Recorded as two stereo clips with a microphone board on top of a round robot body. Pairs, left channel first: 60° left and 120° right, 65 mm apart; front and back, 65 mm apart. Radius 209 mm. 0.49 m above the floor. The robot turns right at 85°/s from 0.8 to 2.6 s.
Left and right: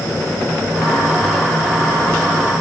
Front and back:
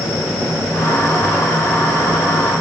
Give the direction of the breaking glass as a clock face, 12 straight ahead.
No breaking glass in this recording.